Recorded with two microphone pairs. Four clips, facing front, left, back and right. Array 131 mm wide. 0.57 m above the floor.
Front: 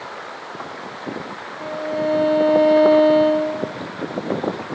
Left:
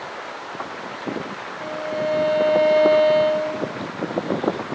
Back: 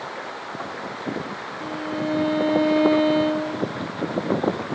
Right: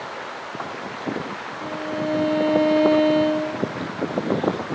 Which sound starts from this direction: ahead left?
A violin, at 1.6 s.